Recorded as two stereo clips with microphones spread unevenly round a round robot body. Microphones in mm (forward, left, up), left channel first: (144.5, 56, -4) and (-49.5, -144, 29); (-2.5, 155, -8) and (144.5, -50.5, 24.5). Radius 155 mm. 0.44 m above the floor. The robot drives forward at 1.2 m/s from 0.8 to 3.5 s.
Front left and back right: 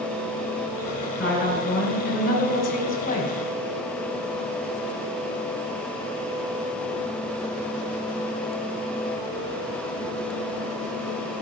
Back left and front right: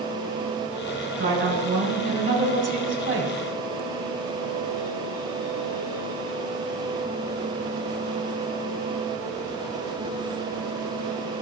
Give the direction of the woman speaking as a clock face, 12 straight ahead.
12 o'clock.